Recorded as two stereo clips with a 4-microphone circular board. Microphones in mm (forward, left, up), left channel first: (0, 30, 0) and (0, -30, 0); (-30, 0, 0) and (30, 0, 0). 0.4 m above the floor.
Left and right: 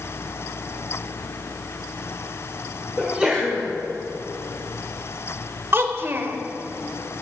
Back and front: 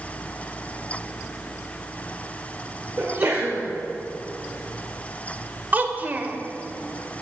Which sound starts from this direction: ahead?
A sneeze, at 3.0 s.